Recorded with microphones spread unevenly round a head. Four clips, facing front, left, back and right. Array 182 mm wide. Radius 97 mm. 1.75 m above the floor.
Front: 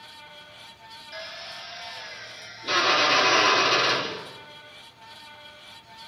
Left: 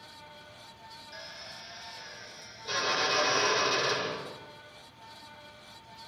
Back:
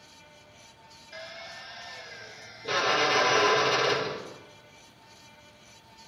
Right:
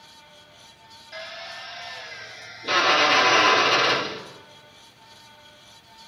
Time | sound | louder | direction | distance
1.1 | a drill | right 13 dB, front 2 dB | 50° right | 6 m